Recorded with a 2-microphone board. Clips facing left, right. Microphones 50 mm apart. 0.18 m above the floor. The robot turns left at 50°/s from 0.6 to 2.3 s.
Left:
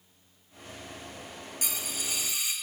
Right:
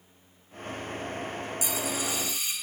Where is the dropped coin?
55° left, 1.5 m; by 2.5 s 20° left, 1.5 m.